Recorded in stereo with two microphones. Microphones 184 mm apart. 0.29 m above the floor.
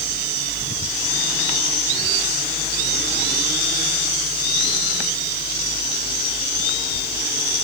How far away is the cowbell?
No cowbell in this recording.